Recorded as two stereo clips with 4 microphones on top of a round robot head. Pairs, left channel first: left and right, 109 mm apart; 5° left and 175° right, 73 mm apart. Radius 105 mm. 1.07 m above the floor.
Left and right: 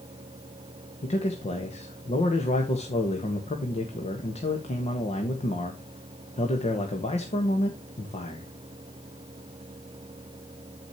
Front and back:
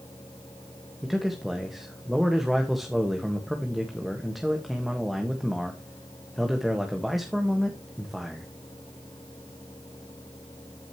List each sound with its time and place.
1.0 s a man speaking: 95° left, 1.6 m